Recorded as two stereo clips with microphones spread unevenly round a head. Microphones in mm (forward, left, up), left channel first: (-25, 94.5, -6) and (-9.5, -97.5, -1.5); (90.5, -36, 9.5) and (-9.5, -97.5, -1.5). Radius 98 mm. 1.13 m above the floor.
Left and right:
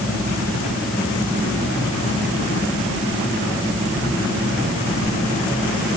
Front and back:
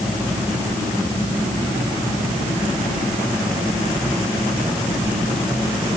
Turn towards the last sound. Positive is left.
No sound to turn to.